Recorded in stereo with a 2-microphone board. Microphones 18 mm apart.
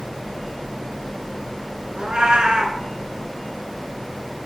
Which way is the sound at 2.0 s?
65° right (ahead or behind).